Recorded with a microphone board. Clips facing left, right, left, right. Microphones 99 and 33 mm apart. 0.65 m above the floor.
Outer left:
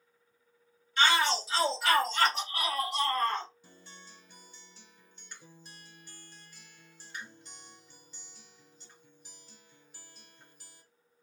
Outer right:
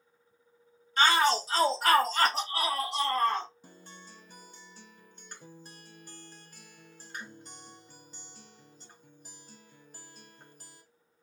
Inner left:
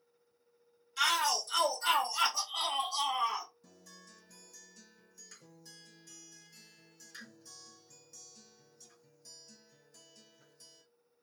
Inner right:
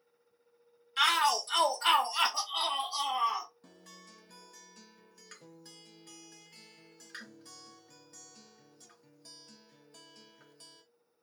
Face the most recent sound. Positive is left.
turn(degrees=-50)  # may be behind; listen again after turning